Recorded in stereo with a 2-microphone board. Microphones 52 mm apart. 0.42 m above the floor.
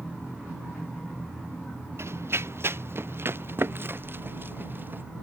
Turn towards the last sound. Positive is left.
turn(degrees=-40)  # may be behind; listen again after turning